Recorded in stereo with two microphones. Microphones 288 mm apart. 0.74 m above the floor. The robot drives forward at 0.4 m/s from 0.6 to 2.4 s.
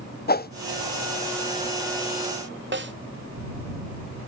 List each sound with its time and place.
0.3 s a whoosh: 35° left (ahead or behind), 0.5 m
2.7 s a snare drum: 40° right (ahead or behind), 1.0 m